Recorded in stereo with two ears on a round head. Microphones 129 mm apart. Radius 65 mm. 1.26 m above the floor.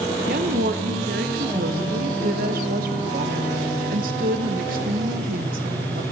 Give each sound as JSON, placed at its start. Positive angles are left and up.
{"t": 0.3, "sound": "a woman speaking", "side_deg": -65, "distance_m": 1.0}